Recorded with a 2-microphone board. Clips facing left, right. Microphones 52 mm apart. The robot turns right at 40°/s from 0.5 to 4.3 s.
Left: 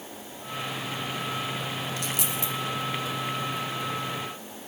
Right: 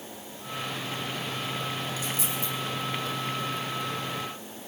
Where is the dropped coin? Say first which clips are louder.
Left 1 dB; 70° left (ahead or behind), 4.5 m; by 2.5 s 85° left, 4.5 m.